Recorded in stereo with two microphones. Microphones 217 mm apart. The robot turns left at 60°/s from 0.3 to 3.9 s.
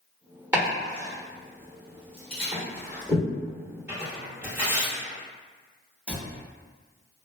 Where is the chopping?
5° right (ahead or behind), 1.0 m; by 3.2 s centre (ahead or behind), 1.0 m.